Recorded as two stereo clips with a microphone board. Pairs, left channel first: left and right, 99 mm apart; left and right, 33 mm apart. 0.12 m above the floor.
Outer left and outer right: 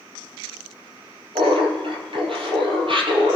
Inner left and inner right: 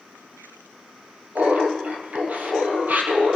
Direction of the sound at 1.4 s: 65° right (ahead or behind).